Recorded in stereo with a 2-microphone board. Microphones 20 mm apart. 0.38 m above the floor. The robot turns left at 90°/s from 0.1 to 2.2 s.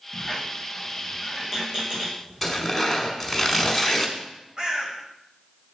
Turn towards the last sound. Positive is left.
turn(degrees=-40)  # may be behind; listen again after turning